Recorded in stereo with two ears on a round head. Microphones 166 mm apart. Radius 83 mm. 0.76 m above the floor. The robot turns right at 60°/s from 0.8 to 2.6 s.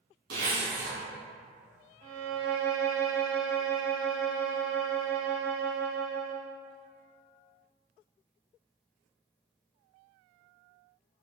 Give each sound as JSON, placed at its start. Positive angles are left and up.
{"t": 0.3, "sound": "a zipper", "side_deg": -60, "distance_m": 1.4}
{"t": 2.0, "sound": "a violin", "azimuth_deg": -125, "distance_m": 0.8}